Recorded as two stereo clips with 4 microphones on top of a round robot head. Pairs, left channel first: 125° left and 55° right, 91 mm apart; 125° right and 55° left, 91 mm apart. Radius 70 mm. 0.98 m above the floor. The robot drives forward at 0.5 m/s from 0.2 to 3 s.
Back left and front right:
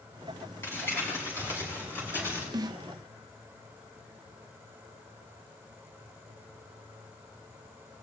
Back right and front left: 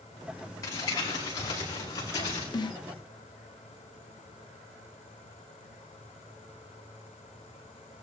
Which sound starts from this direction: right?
A snare drum, at 2.5 s.